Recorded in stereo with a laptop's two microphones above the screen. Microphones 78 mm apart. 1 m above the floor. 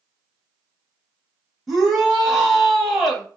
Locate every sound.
1.7 s a shout: 5° right (ahead or behind), 0.9 m